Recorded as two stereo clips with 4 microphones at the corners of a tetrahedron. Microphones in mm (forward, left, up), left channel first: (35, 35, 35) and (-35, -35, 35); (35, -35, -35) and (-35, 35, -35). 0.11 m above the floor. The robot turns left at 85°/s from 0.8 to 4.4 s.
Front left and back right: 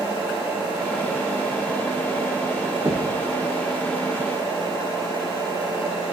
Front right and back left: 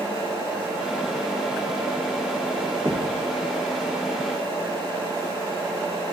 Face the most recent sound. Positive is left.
turn(degrees=70)